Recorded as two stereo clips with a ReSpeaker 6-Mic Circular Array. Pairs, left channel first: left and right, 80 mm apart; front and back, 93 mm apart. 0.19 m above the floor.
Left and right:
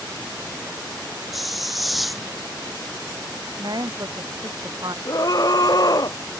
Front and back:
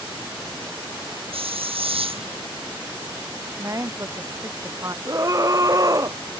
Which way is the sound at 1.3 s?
Straight behind.